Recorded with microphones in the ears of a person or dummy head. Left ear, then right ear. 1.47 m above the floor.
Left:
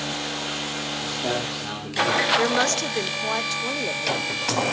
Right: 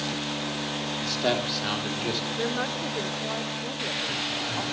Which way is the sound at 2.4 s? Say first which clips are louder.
Left 7 dB; 75° left (ahead or behind).